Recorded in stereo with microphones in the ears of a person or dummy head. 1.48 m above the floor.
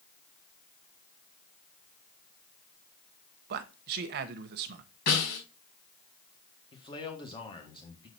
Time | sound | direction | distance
3.5 | a man speaking | 60° right (ahead or behind) | 0.8 m
5.1 | a snare drum | 65° left (ahead or behind) | 4.5 m
6.7 | a man speaking | 30° left (ahead or behind) | 1.4 m